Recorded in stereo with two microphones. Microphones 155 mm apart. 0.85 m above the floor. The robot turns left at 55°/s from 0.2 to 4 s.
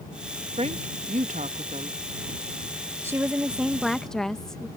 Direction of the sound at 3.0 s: 15° right (ahead or behind).